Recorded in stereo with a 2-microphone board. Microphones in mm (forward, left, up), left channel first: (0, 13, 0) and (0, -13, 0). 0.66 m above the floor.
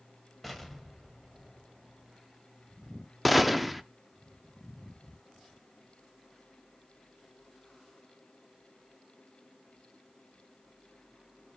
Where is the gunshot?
5° right (ahead or behind), 0.6 m.